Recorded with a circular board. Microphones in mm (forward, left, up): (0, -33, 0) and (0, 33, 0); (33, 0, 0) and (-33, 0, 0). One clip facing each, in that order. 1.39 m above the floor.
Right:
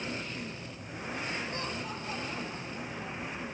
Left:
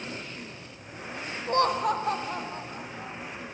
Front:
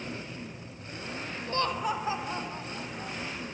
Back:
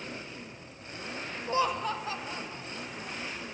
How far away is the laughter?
About 0.6 m.